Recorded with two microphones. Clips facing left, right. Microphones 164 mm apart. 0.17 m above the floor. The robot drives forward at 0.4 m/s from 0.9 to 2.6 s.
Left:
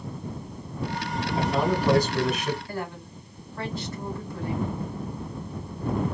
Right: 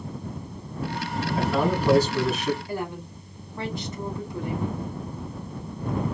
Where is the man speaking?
15° left (ahead or behind), 1.4 m.